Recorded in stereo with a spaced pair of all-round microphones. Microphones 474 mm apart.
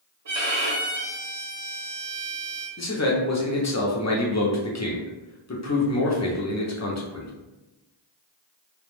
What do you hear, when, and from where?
0.2 s a violin: 60° right (ahead or behind), 0.8 m
2.8 s a man speaking: 35° left (ahead or behind), 0.6 m